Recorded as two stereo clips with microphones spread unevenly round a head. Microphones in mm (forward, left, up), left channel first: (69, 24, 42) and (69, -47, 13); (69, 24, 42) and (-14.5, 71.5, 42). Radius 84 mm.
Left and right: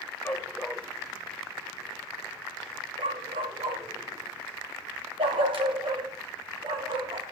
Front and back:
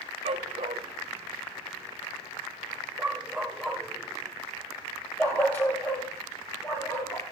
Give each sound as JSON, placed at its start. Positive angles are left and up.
{"t": 0.2, "sound": "a dog barking", "azimuth_deg": 155, "distance_m": 1.5}